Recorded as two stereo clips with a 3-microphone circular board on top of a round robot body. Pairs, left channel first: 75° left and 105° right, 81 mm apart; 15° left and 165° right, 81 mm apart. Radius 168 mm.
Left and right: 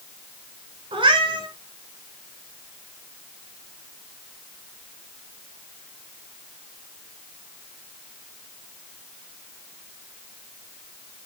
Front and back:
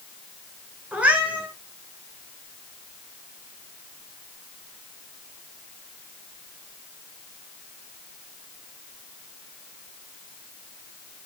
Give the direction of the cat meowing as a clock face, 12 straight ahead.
3 o'clock.